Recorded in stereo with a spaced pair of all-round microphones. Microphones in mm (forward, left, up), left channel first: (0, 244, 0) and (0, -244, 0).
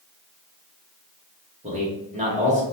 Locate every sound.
1.6 s a man speaking: 15° right (ahead or behind), 1.4 m